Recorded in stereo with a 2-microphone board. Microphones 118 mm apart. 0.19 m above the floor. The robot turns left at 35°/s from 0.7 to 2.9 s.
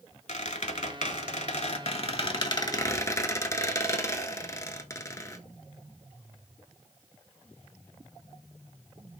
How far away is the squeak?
About 0.6 m.